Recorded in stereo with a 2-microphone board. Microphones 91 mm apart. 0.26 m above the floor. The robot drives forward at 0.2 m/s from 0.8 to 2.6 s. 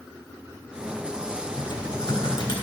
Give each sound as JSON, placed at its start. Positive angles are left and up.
{"t": 1.6, "sound": "typing on a keyboard", "side_deg": 65, "distance_m": 3.0}